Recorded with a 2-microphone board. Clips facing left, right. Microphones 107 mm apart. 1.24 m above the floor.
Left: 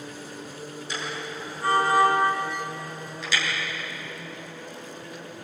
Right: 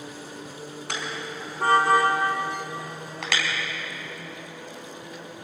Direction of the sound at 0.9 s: 70° right (ahead or behind).